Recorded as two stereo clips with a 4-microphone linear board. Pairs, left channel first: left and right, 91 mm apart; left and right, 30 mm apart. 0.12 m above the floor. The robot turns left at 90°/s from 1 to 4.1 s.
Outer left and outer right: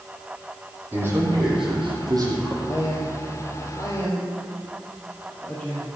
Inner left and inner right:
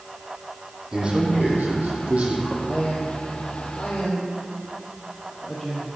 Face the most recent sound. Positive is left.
turn(degrees=15)  # may be behind; listen again after turning